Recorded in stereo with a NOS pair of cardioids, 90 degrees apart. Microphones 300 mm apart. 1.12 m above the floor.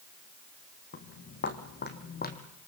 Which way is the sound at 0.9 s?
45° left.